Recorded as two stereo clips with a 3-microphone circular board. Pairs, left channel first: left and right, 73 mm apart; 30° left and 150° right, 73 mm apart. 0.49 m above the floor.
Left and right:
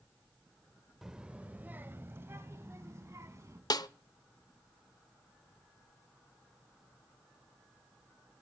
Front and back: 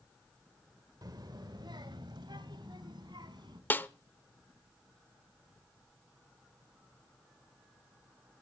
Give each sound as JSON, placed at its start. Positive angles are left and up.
{"t": 1.0, "sound": "a child speaking", "azimuth_deg": -175, "distance_m": 1.0}
{"t": 3.7, "sound": "a snare drum", "azimuth_deg": 90, "distance_m": 0.7}